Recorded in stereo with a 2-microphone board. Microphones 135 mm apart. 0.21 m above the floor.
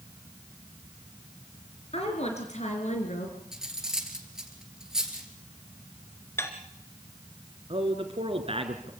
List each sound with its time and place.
1.9 s a woman speaking: 50° left (ahead or behind), 3.5 m; by 3.4 s 65° left (ahead or behind), 3 m
3.5 s cutlery clinking: 5° right (ahead or behind), 2.5 m
6.4 s dishes clattering: 20° left (ahead or behind), 2.0 m
7.7 s a man speaking: 45° right (ahead or behind), 2.5 m